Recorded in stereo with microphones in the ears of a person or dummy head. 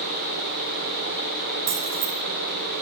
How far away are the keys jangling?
About 6 m.